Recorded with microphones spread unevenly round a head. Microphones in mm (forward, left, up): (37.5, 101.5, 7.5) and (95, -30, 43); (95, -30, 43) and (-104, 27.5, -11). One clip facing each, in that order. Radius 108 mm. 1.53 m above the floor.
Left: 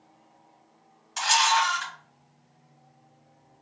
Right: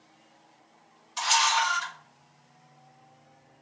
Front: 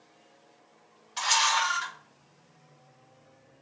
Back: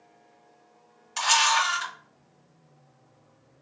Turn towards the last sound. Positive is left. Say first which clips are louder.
# left 2 dB, back 3 dB
turn(degrees=135)